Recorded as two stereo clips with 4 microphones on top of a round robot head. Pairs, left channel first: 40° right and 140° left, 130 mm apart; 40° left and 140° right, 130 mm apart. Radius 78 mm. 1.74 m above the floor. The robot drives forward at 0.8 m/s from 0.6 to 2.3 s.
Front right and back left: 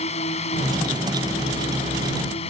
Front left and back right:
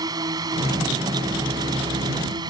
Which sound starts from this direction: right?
A drone, at 0.0 s.